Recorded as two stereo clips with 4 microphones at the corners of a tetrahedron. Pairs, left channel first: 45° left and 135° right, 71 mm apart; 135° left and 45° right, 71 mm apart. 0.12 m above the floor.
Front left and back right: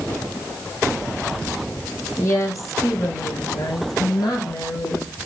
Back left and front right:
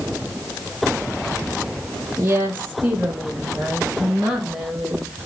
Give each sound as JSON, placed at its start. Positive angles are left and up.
{"t": 2.2, "sound": "a woman speaking", "azimuth_deg": 5, "distance_m": 3.0}